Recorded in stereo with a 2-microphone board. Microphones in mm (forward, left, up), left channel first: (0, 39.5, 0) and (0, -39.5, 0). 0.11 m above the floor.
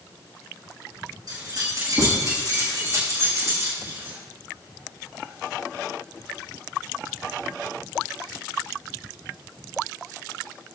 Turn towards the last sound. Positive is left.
turn(degrees=-35)  # may be behind; listen again after turning